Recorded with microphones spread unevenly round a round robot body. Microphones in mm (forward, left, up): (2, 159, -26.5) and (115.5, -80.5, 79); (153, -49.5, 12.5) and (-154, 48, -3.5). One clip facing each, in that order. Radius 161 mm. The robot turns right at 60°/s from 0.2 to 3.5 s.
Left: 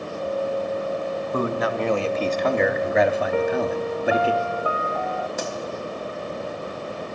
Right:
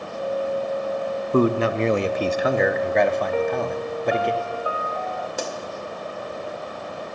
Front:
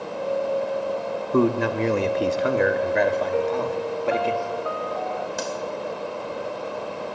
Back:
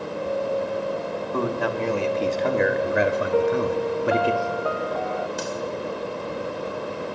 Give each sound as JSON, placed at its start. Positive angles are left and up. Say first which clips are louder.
{"t": 1.3, "sound": "a man speaking", "louder": "right 7 dB, front 6 dB", "azimuth_deg": -10, "distance_m": 0.8}
{"t": 3.3, "sound": "a piano", "louder": "left 1 dB, back 3 dB", "azimuth_deg": 120, "distance_m": 0.5}
{"t": 5.4, "sound": "a pop", "louder": "even, even", "azimuth_deg": -10, "distance_m": 2.5}